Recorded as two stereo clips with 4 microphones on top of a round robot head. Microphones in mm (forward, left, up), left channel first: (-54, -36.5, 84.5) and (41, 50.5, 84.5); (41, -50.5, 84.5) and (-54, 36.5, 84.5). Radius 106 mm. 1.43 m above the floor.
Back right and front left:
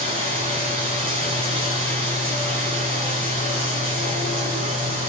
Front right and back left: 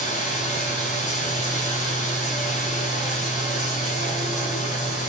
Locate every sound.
0.0 s running water: 10° right, 6.5 m